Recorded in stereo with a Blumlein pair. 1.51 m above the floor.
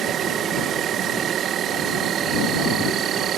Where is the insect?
30° right.